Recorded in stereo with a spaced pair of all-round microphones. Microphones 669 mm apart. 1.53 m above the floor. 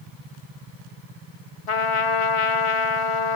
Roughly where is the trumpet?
Left.